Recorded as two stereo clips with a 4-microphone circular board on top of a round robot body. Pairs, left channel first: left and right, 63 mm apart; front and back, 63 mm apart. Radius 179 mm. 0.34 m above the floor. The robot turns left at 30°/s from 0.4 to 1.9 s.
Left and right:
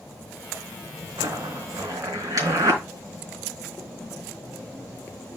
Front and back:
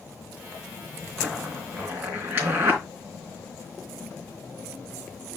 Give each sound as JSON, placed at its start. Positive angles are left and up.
{"t": 1.2, "sound": "a zipper", "azimuth_deg": -100, "distance_m": 3.5}